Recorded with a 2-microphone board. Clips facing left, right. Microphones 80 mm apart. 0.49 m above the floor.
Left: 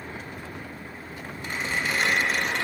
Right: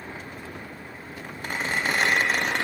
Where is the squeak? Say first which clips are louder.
Right 2 dB; 65° right (ahead or behind), 0.8 m.